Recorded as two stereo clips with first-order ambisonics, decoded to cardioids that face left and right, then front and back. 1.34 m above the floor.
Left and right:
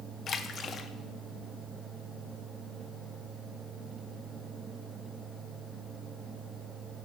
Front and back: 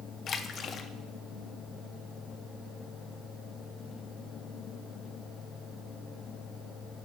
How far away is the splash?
About 0.5 m.